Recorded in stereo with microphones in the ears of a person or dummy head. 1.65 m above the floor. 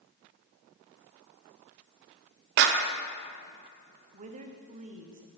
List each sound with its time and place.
2.6 s a clap: 60° right (ahead or behind), 0.6 m
4.1 s a woman speaking: 40° right (ahead or behind), 0.8 m